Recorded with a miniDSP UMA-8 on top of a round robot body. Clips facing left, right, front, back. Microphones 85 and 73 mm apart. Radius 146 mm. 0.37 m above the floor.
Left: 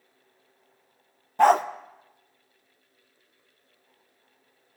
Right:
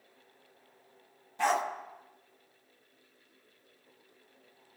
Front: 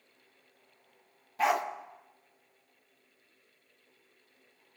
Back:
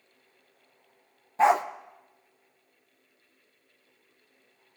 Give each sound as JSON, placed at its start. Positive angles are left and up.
{"t": 1.4, "sound": "a dog barking", "azimuth_deg": 125, "distance_m": 0.6}